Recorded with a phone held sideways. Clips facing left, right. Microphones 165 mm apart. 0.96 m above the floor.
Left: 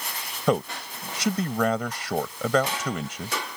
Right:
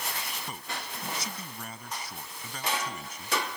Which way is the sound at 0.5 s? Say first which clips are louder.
Left 15 dB; 85° left.